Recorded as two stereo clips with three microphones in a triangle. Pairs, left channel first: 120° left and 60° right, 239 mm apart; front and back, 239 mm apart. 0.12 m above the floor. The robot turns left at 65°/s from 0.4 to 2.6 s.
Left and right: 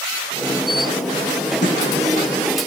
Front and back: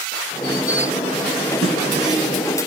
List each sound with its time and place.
1.6 s a snare drum: 160° left, 5.5 m; by 1.8 s 150° left, 5.5 m